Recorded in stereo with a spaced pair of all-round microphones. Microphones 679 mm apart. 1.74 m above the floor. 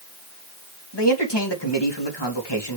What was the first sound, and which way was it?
A man speaking, 35° left (ahead or behind).